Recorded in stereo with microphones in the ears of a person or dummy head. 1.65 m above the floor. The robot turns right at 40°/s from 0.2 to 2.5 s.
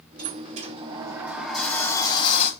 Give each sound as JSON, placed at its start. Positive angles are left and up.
{"t": 0.2, "sound": "a sliding door", "azimuth_deg": -50, "distance_m": 0.6}